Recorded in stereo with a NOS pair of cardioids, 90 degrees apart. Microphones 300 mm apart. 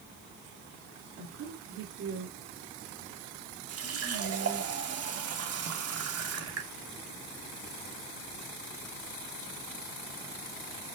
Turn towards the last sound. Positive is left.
turn(degrees=-55)